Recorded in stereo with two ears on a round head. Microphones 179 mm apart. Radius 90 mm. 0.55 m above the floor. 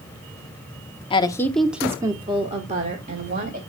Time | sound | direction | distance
1.1 | a woman speaking | 25° left (ahead or behind) | 0.9 m